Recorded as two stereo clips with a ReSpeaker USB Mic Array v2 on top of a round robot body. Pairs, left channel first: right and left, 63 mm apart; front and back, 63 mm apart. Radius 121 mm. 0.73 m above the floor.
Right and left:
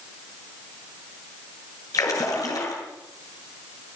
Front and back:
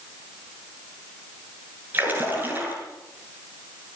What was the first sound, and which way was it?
A splash, 120° right.